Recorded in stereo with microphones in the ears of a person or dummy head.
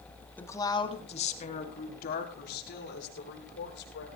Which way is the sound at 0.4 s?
10° left (ahead or behind).